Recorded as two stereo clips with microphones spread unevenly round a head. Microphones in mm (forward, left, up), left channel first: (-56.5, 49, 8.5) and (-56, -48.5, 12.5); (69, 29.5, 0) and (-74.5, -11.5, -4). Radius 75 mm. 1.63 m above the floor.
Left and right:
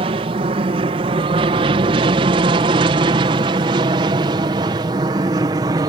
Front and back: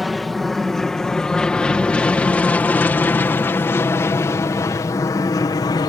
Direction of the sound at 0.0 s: 75° right.